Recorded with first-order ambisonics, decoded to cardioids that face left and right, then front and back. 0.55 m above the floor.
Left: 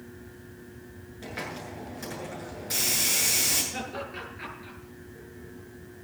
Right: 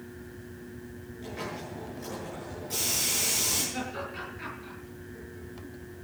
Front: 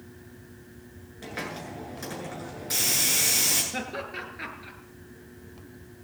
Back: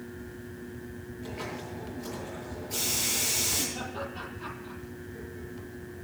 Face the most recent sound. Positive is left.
turn(degrees=10)